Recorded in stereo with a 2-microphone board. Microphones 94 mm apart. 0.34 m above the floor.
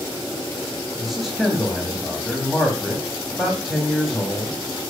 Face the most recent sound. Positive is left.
turn(degrees=0)  # may be behind; listen again after turning